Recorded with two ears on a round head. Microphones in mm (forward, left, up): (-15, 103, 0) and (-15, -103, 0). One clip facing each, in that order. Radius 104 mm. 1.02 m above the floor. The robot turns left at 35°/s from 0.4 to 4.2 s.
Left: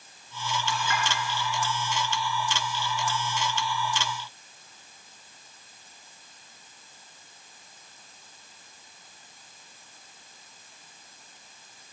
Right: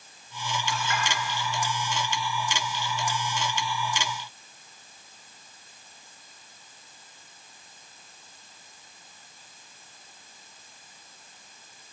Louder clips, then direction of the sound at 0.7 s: Even; 75° left (ahead or behind).